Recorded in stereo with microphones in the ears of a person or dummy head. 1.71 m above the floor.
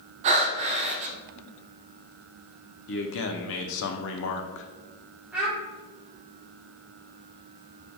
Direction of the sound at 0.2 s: 40° right (ahead or behind).